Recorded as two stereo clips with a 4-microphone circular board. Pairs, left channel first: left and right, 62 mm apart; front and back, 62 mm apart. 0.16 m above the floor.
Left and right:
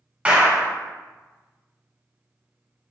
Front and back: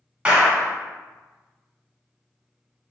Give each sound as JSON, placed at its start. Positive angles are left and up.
{"t": 0.2, "sound": "a clap", "azimuth_deg": -130, "distance_m": 1.3}